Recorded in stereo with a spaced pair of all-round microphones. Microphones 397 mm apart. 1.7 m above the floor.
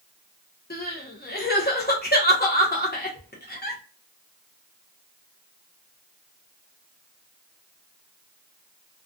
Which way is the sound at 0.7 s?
25° left (ahead or behind).